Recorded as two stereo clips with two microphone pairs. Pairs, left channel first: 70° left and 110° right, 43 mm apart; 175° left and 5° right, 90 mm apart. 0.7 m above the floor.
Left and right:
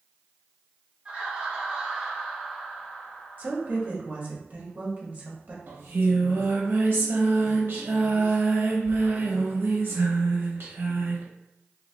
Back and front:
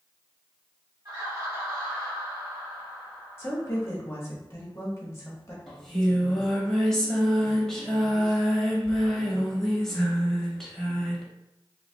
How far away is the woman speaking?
About 1.2 m.